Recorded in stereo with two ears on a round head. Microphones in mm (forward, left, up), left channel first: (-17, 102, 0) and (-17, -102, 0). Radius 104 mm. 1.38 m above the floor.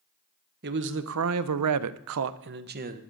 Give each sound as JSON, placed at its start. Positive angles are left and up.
{"t": 0.6, "sound": "a man speaking", "side_deg": -40, "distance_m": 0.9}